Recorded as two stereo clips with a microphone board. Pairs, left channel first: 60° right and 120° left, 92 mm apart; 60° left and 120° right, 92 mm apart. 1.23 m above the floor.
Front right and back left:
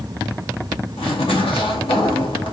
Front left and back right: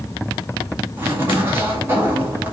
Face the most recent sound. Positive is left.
turn(degrees=-55)